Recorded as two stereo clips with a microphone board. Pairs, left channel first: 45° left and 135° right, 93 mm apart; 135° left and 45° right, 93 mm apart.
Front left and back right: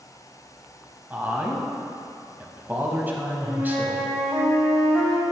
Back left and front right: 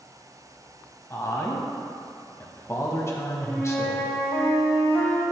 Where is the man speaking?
170° left, 1.1 m.